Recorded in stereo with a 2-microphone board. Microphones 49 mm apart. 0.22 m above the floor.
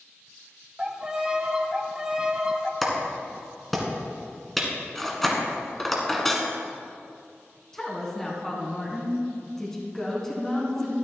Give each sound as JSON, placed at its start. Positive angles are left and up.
{"t": 0.8, "sound": "a violin", "side_deg": -20, "distance_m": 0.9}
{"t": 2.8, "sound": "a clap", "side_deg": 5, "distance_m": 1.9}
{"t": 5.0, "sound": "cutlery clinking", "side_deg": 5, "distance_m": 1.3}
{"t": 7.7, "sound": "a woman speaking", "side_deg": 10, "distance_m": 2.0}